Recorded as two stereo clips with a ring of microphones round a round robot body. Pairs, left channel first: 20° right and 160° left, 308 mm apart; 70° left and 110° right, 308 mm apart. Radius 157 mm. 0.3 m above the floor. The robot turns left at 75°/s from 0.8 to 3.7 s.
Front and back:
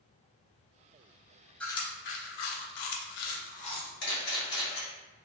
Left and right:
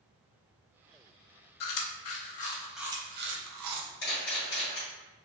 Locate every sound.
1.6 s chewing: 65° left, 0.5 m; by 3.9 s 95° right, 0.5 m
4.0 s a camera shutter: 20° left, 1.5 m